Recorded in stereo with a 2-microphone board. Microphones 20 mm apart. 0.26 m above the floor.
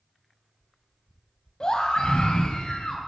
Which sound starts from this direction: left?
A scream, at 1.6 s.